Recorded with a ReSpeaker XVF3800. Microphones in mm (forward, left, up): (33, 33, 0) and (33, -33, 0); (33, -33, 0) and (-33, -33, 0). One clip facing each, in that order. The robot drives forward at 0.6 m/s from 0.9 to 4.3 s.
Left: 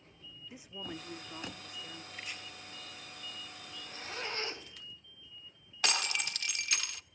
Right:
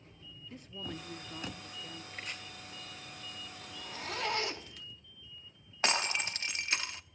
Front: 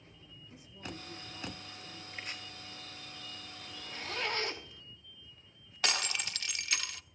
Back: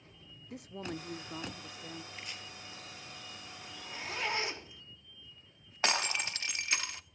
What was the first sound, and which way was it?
A woman speaking, 170° left.